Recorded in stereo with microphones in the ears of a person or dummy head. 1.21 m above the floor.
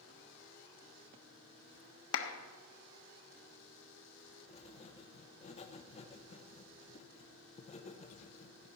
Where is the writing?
30° left (ahead or behind), 1.0 m.